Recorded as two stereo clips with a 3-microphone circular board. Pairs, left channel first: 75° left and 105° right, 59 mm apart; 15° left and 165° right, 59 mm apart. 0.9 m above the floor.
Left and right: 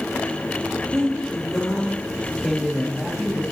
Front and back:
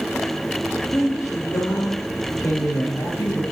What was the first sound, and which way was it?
A woman speaking, 15° right.